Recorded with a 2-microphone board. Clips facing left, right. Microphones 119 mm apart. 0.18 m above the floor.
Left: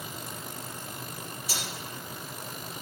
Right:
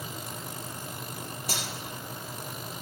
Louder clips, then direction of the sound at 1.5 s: Right 2 dB; 55° right (ahead or behind).